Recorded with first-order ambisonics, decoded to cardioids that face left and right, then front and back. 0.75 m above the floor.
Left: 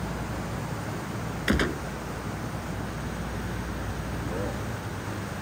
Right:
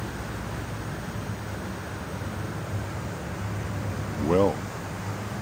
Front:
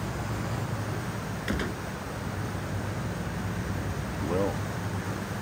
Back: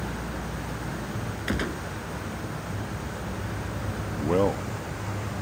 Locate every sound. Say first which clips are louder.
1.5 s a gunshot: left 9 dB, back 3 dB; 100° left
4.1 s a man speaking: right 13 dB, back 5 dB; 110° right